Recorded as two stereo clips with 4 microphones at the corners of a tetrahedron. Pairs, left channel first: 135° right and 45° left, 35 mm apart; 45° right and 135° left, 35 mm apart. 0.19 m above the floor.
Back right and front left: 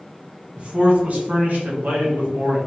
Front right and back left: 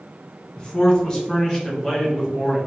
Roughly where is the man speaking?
Ahead.